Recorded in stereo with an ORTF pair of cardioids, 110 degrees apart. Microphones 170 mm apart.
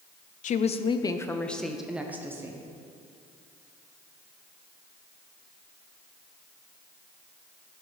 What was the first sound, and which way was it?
A woman speaking, 50° left.